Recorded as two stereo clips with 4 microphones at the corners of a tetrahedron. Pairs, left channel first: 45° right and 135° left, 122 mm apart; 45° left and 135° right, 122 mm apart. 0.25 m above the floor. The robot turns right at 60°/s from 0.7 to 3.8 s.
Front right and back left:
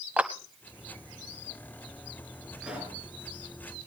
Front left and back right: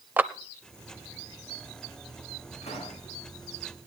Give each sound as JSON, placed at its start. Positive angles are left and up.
{"t": 0.2, "sound": "a clap", "azimuth_deg": 180, "distance_m": 0.7}
{"t": 2.6, "sound": "a pop", "azimuth_deg": 50, "distance_m": 4.0}